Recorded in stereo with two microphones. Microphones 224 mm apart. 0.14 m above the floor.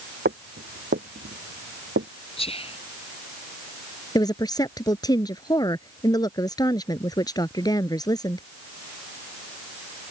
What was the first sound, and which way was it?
Footsteps, 50° right (ahead or behind).